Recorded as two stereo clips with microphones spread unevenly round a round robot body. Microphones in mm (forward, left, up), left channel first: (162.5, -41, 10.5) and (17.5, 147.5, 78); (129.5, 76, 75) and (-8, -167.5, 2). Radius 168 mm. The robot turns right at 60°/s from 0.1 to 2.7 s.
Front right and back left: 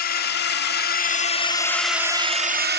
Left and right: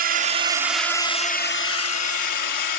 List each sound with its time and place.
0.0 s a drone: 80° right; by 2.8 s 75° left